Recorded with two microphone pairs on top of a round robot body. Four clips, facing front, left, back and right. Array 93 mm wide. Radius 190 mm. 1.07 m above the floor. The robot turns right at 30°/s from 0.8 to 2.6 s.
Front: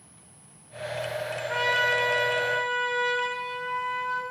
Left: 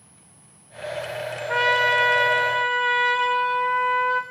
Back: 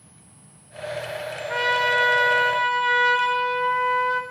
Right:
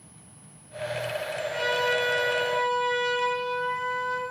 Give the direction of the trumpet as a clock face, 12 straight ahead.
9 o'clock.